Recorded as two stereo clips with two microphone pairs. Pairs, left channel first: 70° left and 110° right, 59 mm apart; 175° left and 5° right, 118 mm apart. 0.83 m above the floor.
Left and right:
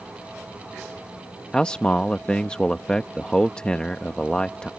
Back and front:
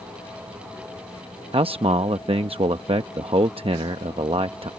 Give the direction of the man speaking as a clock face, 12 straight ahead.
12 o'clock.